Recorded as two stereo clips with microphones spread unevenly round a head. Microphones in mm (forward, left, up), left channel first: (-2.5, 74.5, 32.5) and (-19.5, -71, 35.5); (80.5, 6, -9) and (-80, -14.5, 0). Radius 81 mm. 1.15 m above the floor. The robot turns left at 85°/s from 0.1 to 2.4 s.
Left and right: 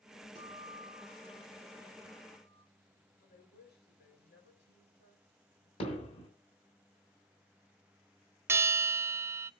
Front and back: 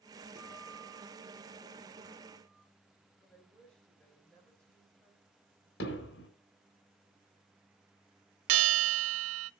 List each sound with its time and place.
0.3 s a guitar: 55° right, 7.5 m; by 2.6 s 130° left, 7.5 m
3.2 s a woman speaking: 90° left, 5.5 m
5.8 s hammering: 30° left, 3.5 m
8.5 s a bell: 170° right, 0.5 m